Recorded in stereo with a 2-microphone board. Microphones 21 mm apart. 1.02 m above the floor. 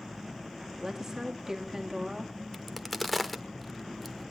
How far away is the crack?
About 0.9 m.